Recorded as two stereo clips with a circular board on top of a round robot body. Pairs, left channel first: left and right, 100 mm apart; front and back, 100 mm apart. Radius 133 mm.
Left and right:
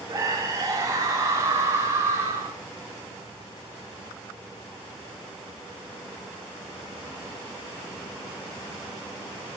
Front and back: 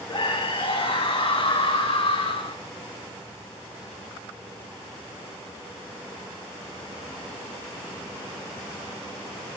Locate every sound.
0.1 s a scream: 35° right, 8.5 m; by 2.6 s 25° right, 9.5 m